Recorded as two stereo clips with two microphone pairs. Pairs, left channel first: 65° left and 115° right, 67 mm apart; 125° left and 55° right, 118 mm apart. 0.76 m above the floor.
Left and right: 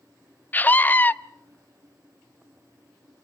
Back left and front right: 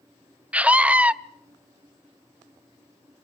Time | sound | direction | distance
0.5 | a scream | 20° left | 0.6 m